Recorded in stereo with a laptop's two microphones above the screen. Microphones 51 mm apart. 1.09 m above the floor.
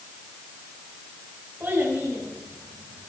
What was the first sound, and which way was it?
A child speaking, 40° right (ahead or behind).